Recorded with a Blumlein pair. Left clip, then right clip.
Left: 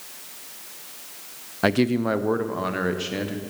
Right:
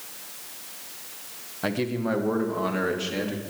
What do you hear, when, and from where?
1.6 s a man speaking: 25° left, 0.6 m; by 3.4 s 10° left, 1.9 m